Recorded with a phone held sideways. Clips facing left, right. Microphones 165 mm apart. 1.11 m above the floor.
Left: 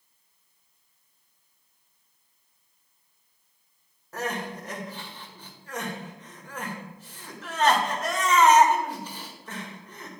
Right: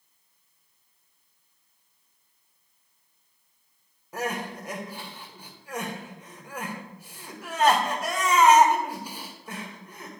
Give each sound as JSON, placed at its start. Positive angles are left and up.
{"t": 4.1, "sound": "crying", "side_deg": -10, "distance_m": 1.7}